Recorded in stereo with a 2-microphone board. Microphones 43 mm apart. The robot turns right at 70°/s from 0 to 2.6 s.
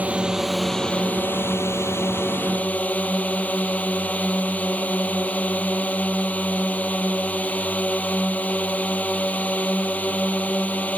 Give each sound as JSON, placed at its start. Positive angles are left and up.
{"t": 0.0, "sound": "a drone", "azimuth_deg": -40}